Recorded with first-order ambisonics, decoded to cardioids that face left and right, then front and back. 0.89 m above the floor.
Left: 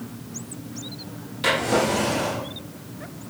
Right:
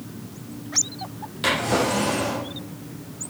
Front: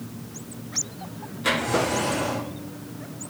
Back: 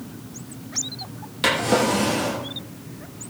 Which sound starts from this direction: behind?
A drawer, at 1.4 s.